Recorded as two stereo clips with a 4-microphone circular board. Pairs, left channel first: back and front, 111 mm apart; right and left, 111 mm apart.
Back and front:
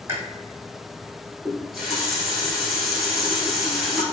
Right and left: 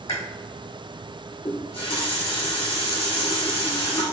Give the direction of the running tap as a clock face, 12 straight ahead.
3 o'clock.